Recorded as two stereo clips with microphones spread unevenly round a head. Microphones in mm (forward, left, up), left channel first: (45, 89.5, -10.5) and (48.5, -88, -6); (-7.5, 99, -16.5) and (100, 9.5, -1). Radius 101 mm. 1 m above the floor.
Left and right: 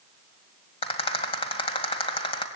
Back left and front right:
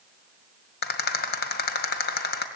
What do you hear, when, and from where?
0.8 s a rattle: 155° left, 2 m